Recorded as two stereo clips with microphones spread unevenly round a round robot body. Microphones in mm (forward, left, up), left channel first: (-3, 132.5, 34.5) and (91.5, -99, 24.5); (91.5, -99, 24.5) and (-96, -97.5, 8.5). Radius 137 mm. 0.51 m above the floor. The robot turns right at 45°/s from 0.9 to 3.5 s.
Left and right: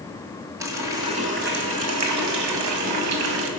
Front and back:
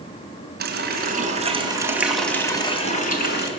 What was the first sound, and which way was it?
A running tap, 150° right.